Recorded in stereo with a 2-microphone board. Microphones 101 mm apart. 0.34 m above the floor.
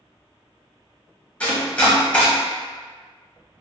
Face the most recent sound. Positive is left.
turn(degrees=15)  # may be behind; listen again after turning